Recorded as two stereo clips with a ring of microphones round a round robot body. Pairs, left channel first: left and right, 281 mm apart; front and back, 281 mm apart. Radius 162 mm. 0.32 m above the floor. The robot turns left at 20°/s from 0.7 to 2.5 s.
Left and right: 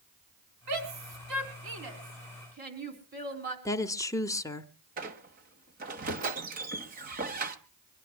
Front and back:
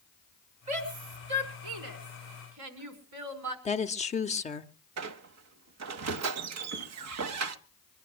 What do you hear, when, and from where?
0.7 s a shout: 115° right, 4.5 m; by 3.5 s 150° right, 4.5 m
3.6 s a woman speaking: 25° left, 1.1 m
5.0 s a squeak: 150° right, 1.0 m